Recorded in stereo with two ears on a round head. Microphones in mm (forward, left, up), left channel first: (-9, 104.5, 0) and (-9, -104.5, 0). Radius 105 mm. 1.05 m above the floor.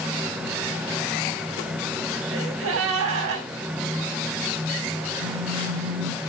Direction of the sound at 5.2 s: 50° right (ahead or behind).